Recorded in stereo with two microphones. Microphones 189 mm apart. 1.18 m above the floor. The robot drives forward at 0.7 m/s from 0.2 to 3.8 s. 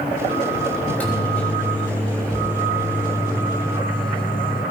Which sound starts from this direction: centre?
A microwave, at 0.8 s.